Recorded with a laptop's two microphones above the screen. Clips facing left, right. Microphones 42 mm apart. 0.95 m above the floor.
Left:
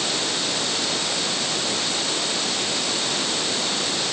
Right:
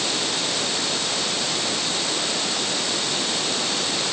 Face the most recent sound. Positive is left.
No sound to turn to.